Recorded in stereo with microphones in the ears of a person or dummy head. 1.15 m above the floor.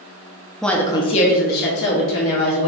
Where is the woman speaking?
Centre (ahead or behind), 0.6 m; by 2.7 s 70° left (ahead or behind), 1.5 m.